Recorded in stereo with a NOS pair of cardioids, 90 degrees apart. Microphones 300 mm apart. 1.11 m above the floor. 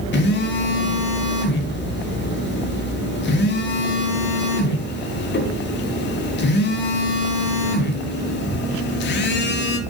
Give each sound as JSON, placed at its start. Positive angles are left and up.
{"t": 0.1, "sound": "a phone buzzing", "azimuth_deg": 35, "distance_m": 0.6}